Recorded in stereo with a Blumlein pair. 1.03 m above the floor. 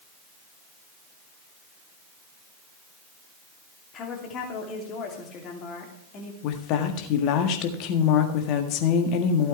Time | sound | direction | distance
3.9 | a woman speaking | 30° left | 3 m
6.4 | a woman speaking | 40° left | 1.7 m